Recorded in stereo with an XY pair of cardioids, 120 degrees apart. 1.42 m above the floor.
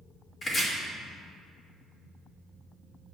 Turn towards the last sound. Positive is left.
turn(degrees=30)